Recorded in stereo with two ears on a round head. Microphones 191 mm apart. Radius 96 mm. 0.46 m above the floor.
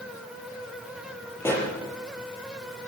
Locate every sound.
1.4 s a pop: 10° left (ahead or behind), 7 m